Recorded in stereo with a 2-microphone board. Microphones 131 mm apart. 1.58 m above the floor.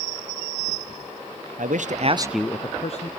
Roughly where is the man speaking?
Right.